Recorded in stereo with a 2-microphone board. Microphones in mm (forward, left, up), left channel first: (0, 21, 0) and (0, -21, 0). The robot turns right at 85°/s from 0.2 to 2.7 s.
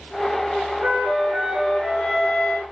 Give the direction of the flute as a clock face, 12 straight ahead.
3 o'clock.